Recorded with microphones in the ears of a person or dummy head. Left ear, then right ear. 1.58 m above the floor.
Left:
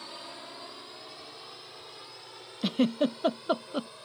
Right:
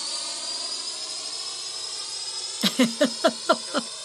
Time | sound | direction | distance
0.0 | a drone | 80° right | ?
2.6 | a giggle | 60° right (ahead or behind) | ?